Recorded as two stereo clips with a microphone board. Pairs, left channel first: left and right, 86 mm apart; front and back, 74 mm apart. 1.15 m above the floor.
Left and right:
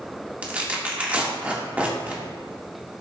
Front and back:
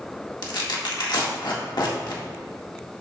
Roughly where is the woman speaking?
I don't hear a woman speaking.